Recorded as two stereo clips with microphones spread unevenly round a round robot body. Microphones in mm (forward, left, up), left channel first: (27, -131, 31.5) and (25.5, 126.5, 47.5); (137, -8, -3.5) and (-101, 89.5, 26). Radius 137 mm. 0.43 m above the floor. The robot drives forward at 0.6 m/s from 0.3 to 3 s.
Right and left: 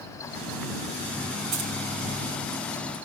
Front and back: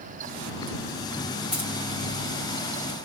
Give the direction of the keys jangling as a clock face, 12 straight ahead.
10 o'clock.